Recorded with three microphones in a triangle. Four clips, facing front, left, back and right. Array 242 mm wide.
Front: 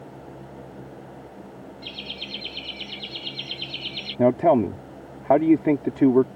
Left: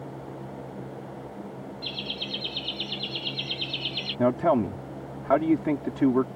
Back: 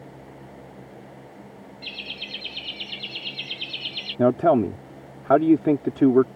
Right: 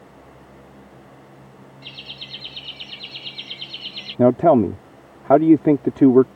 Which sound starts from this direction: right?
A man speaking, at 4.2 s.